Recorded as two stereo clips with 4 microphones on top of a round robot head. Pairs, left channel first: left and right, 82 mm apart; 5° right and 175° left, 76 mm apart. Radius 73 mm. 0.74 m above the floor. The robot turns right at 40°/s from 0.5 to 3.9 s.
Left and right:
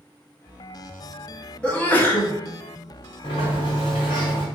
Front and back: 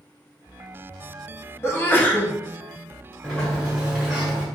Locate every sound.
1.6 s a sneeze: 20° left, 1.1 m; by 2.3 s 45° left, 1.1 m
3.2 s a sliding door: 65° left, 1.6 m; by 4.5 s 90° left, 1.6 m